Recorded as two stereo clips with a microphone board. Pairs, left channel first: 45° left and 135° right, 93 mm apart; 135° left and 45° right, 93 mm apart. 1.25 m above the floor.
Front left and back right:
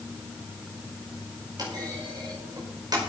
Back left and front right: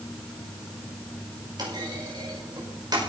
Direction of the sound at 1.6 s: 90° right.